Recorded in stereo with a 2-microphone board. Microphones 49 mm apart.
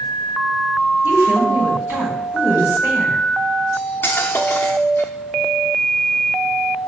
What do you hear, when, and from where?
1.0 s a woman speaking: 45° right (ahead or behind), 4 m
3.7 s cutlery clinking: 45° left (ahead or behind), 0.8 m